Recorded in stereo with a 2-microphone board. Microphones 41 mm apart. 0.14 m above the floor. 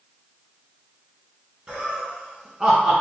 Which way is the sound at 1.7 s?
25° right (ahead or behind).